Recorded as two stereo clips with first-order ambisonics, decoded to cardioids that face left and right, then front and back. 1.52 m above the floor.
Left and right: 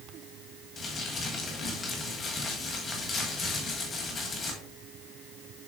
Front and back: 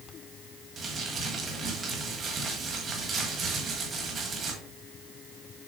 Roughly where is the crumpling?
Behind left.